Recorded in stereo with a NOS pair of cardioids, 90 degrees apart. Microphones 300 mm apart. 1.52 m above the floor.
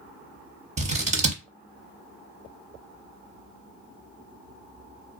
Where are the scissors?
25° right, 0.7 m.